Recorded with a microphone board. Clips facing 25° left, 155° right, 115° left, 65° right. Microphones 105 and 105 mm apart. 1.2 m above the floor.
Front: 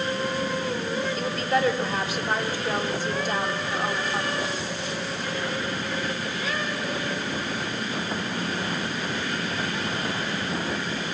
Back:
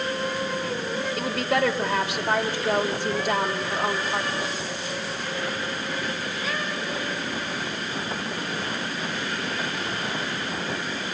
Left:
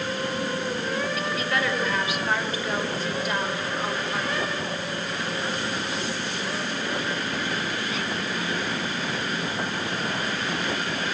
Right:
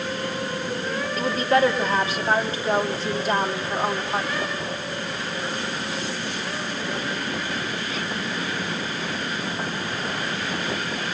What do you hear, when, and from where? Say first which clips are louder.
1.2 s a woman speaking: back 2 dB, right 7 dB; 130° right, 4.5 m